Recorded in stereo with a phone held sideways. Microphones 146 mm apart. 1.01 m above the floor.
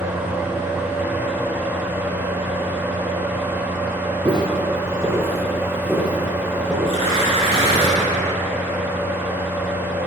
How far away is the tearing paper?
About 2.5 m.